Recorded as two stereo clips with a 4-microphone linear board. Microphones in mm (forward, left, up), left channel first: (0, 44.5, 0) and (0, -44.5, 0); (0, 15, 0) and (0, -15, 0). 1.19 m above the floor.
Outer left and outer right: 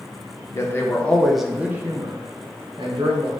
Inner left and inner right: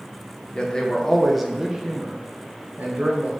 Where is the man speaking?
30° left (ahead or behind), 0.8 m; by 3.3 s 65° right (ahead or behind), 1.0 m.